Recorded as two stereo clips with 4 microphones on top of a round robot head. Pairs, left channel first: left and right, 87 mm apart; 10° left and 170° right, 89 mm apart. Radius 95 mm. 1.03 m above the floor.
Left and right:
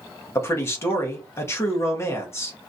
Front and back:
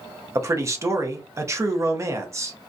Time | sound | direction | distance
0.3 | a man speaking | 140° left | 0.8 m